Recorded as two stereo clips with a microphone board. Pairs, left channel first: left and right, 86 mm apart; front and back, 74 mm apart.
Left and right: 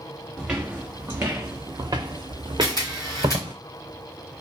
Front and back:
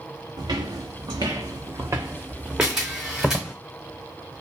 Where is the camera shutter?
105° left, 1.9 m.